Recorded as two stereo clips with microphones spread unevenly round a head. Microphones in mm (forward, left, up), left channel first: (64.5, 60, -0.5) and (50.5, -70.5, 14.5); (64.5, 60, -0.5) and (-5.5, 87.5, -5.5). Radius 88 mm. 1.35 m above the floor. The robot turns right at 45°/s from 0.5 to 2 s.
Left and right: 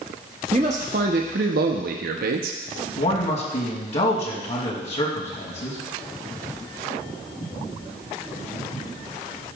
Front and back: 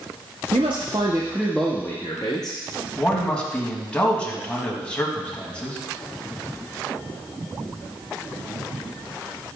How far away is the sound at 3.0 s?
About 2.5 m.